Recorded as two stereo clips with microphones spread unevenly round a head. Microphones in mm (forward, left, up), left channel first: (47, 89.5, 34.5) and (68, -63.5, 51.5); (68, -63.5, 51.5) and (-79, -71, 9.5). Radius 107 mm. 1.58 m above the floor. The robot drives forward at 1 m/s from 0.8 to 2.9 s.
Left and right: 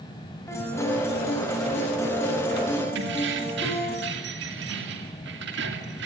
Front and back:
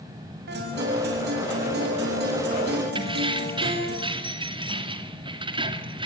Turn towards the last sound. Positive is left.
turn(degrees=-115)